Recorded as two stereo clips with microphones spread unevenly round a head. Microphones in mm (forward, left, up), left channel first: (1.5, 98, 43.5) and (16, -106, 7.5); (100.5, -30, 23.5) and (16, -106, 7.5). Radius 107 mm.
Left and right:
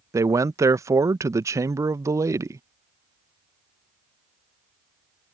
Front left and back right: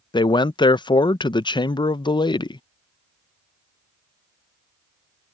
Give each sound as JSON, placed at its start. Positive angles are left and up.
{"t": 0.1, "sound": "a man speaking", "azimuth_deg": -10}